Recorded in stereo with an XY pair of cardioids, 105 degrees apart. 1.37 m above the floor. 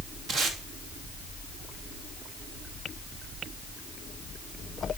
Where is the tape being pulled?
55° right, 3 m.